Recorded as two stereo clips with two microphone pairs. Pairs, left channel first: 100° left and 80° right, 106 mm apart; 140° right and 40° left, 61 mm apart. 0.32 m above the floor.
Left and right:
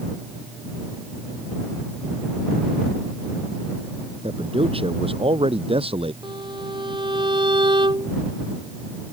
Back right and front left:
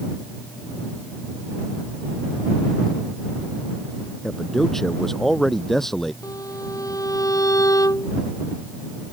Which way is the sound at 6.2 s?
120° right.